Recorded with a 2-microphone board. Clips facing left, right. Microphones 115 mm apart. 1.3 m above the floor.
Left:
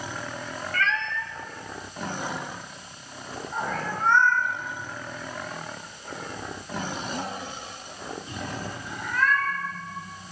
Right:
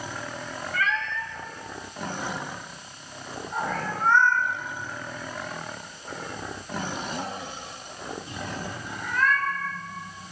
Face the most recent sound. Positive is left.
turn(degrees=0)  # may be behind; listen again after turning